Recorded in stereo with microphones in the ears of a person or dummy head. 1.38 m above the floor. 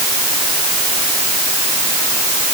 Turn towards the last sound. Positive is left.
No sound to turn to.